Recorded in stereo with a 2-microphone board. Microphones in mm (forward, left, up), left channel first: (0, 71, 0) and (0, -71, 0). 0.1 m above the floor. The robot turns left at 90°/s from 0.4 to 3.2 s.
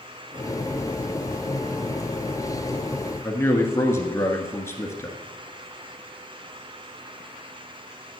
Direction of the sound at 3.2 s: 20° left (ahead or behind).